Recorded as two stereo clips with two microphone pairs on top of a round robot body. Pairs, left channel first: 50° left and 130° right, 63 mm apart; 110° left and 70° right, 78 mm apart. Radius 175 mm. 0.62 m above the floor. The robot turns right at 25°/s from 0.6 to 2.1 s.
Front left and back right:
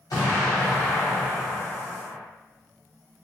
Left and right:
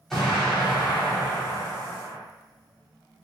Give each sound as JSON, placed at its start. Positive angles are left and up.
{"t": 0.1, "sound": "an explosion", "azimuth_deg": 25, "distance_m": 0.9}